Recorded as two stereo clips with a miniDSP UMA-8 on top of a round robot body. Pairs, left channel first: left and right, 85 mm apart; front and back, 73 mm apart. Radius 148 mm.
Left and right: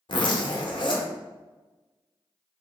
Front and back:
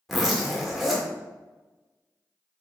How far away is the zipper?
About 0.8 m.